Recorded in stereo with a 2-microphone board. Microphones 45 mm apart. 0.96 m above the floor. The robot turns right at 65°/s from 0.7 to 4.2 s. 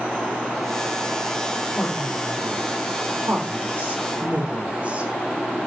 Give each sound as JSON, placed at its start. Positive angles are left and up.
{"t": 1.8, "sound": "a woman speaking", "side_deg": 5, "distance_m": 4.0}